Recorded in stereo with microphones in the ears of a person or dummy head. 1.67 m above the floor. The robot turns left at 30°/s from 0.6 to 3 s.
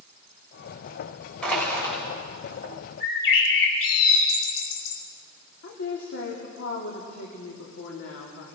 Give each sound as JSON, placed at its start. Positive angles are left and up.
{"t": 1.4, "sound": "crushing", "side_deg": 5, "distance_m": 6.0}
{"t": 3.0, "sound": "a bird", "side_deg": 80, "distance_m": 5.5}
{"t": 5.6, "sound": "a woman speaking", "side_deg": 55, "distance_m": 3.0}